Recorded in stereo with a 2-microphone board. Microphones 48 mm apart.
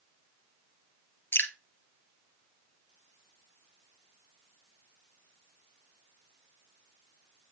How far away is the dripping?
About 1.7 m.